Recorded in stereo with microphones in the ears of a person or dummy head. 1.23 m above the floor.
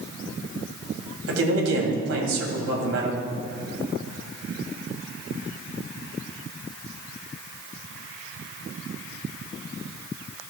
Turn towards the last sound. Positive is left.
turn(degrees=-75)  # may be behind; listen again after turning